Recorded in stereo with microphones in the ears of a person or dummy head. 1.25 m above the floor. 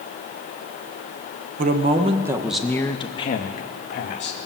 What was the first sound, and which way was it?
A man speaking, 45° right (ahead or behind).